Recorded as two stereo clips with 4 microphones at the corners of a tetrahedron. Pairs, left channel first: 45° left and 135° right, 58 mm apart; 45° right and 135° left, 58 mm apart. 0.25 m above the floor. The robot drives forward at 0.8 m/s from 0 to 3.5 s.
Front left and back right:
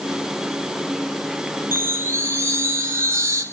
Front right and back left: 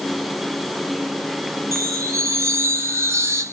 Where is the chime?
170° left, 1.7 m; by 3.4 s 175° left, 3 m.